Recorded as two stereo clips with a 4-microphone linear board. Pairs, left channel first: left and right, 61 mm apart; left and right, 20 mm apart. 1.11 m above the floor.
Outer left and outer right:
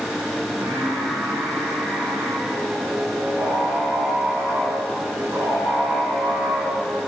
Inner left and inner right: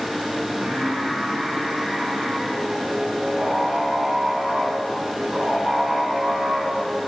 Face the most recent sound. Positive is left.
turn(degrees=-90)